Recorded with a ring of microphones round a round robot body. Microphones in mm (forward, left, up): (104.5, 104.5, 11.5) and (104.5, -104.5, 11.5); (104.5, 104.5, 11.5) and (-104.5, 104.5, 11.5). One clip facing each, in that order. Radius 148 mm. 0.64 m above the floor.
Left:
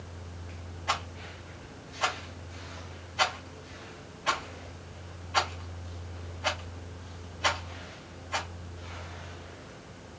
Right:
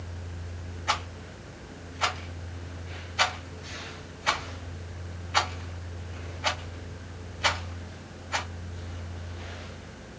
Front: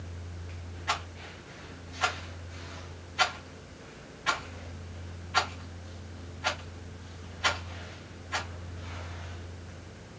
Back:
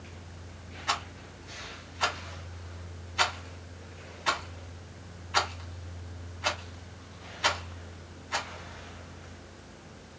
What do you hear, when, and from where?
0.9 s a rattle: 170° right, 1.3 m